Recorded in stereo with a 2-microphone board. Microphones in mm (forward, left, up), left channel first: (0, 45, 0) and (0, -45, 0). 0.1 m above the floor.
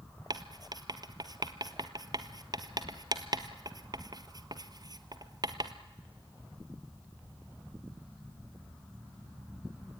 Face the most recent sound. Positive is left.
turn(degrees=-45)  # may be behind; listen again after turning